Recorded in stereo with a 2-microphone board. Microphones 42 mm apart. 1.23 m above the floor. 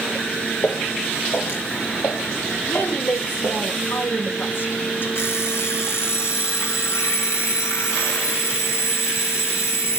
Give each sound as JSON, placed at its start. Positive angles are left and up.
{"t": 0.6, "sound": "footsteps", "side_deg": 75, "distance_m": 5.5}
{"t": 2.6, "sound": "a woman speaking", "side_deg": 55, "distance_m": 3.5}
{"t": 5.2, "sound": "an alarm clock", "side_deg": 80, "distance_m": 5.0}